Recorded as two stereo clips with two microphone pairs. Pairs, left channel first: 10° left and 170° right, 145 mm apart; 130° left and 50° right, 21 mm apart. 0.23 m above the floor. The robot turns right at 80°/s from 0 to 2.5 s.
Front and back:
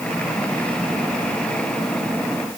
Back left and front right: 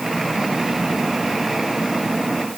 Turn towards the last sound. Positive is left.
No sound to turn to.